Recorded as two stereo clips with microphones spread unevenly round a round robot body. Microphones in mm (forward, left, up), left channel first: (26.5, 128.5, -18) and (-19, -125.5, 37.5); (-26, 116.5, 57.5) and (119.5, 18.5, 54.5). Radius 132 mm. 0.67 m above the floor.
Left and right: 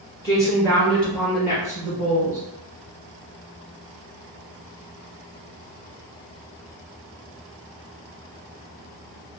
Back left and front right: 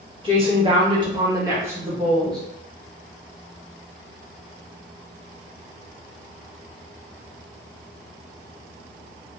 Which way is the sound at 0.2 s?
15° left.